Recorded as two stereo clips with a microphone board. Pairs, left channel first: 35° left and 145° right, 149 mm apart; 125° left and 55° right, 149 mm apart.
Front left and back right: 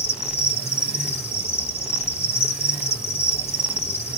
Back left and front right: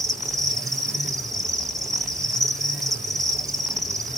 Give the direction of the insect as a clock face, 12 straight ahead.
11 o'clock.